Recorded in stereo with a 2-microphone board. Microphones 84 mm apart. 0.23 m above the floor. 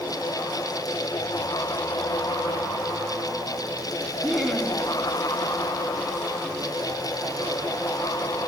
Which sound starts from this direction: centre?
Laughter, at 4.2 s.